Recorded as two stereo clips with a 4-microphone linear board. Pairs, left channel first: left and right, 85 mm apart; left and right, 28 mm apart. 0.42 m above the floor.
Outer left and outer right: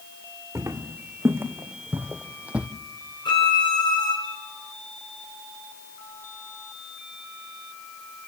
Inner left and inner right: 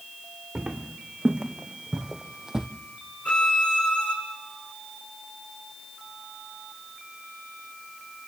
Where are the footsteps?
30° right (ahead or behind), 2 m; by 2.7 s 15° right (ahead or behind), 0.9 m.